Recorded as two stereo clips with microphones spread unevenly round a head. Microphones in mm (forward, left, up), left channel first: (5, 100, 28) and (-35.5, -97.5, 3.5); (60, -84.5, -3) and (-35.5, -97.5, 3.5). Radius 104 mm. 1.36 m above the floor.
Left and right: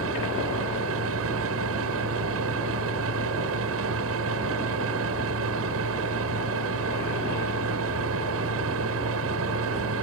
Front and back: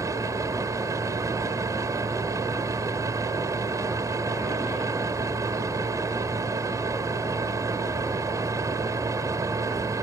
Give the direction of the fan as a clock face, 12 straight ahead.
4 o'clock.